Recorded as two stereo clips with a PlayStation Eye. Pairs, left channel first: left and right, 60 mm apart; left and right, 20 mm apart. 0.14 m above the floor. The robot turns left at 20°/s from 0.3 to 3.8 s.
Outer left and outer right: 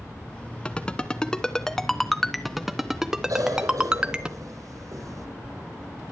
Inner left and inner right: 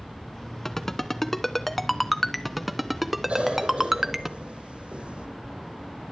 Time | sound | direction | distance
0.7 | a ringtone | 20° left (ahead or behind) | 1.1 m
3.3 | a cough | 70° right (ahead or behind) | 6 m